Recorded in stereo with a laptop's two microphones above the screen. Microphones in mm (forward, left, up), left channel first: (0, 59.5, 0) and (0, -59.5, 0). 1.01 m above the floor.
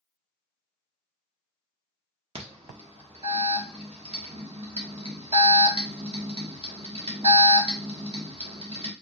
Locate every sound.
2.4 s an alarm: 55° right (ahead or behind), 1.4 m